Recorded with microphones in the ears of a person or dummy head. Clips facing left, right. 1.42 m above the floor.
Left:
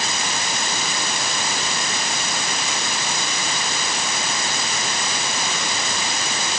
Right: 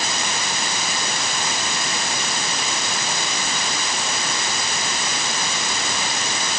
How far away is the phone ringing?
No phone ringing in this recording.